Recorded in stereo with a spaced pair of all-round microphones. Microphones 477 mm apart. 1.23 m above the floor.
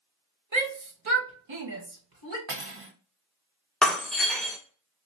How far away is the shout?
About 1.0 m.